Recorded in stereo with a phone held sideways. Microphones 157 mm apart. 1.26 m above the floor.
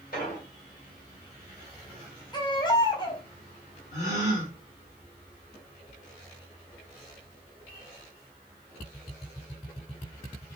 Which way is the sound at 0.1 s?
65° left (ahead or behind).